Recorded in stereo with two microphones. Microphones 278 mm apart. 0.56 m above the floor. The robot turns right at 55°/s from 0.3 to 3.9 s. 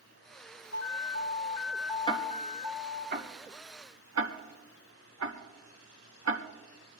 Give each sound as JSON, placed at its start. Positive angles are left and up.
{"t": 0.7, "sound": "an alarm", "azimuth_deg": 110, "distance_m": 3.0}
{"t": 2.1, "sound": "ticking", "side_deg": 20, "distance_m": 1.6}